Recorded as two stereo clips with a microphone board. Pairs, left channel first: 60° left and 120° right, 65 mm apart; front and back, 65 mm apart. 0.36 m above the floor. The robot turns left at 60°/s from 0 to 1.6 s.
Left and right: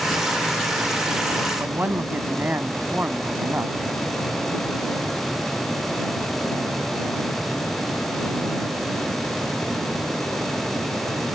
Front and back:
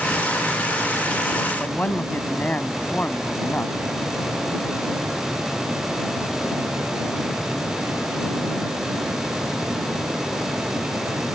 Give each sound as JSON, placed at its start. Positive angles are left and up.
{"t": 1.6, "sound": "a man speaking", "azimuth_deg": -60}